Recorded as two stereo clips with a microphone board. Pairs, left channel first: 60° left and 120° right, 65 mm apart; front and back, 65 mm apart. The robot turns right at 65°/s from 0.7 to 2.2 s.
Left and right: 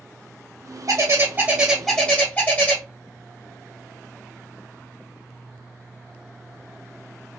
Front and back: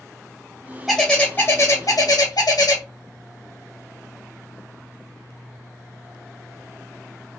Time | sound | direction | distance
0.9 | a bird | 90° right | 1.6 m